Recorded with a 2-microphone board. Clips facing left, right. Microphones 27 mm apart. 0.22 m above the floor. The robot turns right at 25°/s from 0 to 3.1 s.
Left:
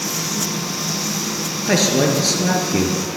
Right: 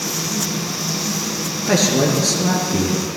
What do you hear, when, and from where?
1.6 s a man speaking: 10° left, 3 m; by 3.0 s 45° left, 3 m